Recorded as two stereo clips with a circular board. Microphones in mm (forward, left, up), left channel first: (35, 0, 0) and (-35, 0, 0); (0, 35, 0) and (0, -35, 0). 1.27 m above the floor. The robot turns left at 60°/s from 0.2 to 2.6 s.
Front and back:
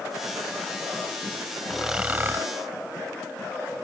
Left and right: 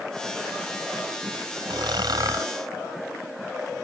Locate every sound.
1.7 s snoring: 90° right; by 2.5 s 135° right